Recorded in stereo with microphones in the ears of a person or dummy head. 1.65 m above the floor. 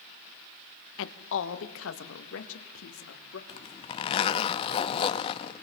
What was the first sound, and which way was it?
A woman speaking, 90° left.